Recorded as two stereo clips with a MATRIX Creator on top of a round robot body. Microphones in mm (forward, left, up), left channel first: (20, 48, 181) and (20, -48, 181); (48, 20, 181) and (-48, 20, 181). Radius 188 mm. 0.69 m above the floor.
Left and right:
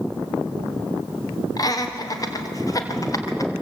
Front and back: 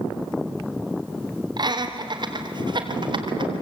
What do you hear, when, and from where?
1.6 s laughter: 140° left, 3 m; by 3.5 s 145° left, 4 m